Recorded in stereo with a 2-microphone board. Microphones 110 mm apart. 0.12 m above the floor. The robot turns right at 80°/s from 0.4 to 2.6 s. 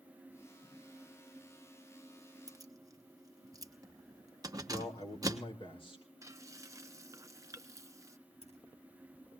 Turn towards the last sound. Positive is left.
turn(degrees=80)